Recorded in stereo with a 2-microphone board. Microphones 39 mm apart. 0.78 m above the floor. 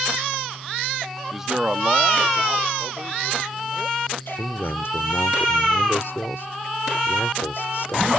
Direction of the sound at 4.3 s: 75° left (ahead or behind).